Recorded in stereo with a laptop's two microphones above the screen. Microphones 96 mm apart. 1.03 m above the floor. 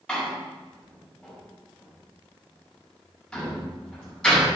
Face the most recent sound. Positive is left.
turn(degrees=5)  # may be behind; listen again after turning